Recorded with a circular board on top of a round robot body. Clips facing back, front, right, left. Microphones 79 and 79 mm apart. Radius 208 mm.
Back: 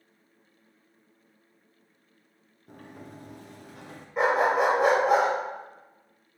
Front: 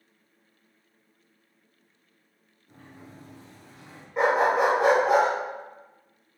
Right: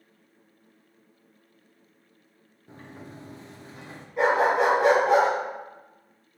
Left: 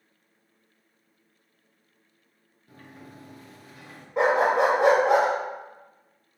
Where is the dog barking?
90° left, 1.3 m.